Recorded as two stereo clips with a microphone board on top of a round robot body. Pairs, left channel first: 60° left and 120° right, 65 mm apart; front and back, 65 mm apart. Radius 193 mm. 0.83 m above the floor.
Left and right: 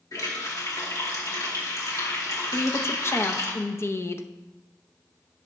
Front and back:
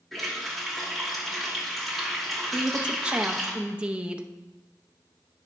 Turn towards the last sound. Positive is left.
turn(degrees=105)